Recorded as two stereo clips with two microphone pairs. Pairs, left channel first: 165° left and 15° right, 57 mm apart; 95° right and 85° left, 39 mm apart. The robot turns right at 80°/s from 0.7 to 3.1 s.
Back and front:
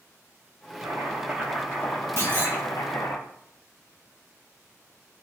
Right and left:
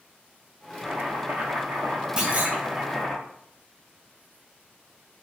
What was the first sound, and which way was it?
Chopping, 15° left.